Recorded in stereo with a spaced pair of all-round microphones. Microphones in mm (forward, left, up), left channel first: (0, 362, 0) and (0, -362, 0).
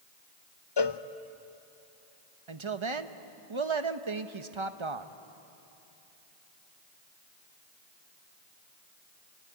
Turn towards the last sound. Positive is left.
turn(degrees=-40)  # may be behind; listen again after turning